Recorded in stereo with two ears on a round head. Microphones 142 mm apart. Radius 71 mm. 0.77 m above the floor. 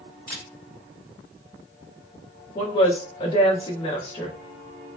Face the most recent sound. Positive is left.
turn(degrees=35)  # may be behind; listen again after turning